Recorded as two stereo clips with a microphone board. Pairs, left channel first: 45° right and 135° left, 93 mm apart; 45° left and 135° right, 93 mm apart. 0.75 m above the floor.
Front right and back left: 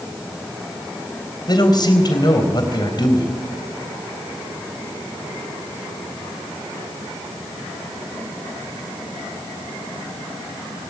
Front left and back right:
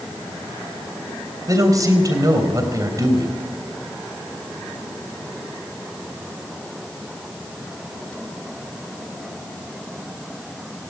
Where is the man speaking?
85° right, 4 m.